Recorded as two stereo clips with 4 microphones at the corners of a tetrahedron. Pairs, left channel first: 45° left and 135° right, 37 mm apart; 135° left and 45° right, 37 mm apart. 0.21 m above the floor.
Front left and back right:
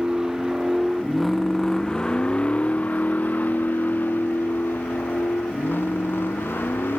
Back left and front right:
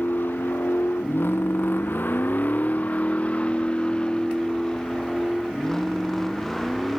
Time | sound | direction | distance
0.0 | a vehicle | 155° left | ?